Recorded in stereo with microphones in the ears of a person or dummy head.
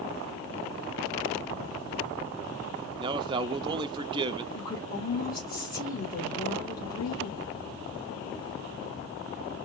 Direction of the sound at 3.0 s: 30° right (ahead or behind).